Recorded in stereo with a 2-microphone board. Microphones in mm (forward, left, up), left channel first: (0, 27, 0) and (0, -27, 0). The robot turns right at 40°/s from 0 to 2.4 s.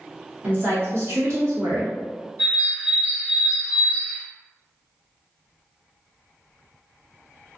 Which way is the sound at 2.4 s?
45° right (ahead or behind).